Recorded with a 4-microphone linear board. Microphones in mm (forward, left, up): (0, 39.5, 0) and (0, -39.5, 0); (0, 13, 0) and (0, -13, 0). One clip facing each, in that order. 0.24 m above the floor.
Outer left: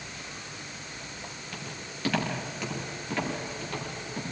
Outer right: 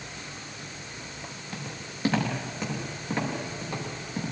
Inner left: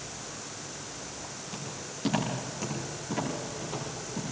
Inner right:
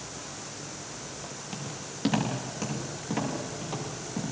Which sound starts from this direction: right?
Footsteps, at 1.5 s.